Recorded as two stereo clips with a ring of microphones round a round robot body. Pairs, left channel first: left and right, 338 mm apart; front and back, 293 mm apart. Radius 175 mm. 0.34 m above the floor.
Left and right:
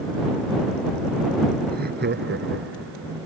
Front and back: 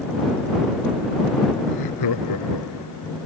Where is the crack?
No crack in this recording.